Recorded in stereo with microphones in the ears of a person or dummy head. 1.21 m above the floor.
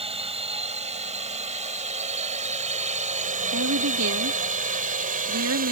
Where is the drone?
35° right (ahead or behind); by 5.7 s 45° right (ahead or behind).